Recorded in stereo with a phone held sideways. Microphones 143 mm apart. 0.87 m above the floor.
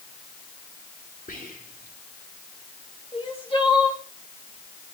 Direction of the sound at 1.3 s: 70° left (ahead or behind).